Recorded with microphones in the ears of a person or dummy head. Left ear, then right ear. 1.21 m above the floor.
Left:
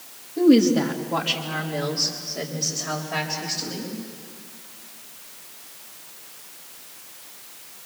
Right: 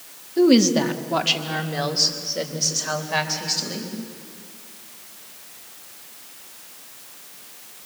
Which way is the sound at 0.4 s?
45° right (ahead or behind).